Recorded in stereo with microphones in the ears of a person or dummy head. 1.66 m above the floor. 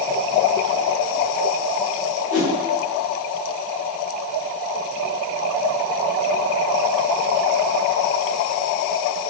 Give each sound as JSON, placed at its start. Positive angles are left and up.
{"t": 2.3, "sound": "a whoosh", "side_deg": 35, "distance_m": 1.5}